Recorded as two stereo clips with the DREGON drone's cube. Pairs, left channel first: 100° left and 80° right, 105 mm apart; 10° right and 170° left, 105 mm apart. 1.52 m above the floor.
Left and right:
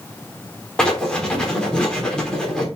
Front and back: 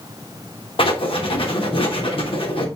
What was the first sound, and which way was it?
Writing, 15° left.